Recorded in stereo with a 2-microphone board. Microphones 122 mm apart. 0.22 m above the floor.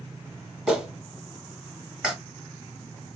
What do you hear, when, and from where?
0.7 s a clap: 5° right (ahead or behind), 1.3 m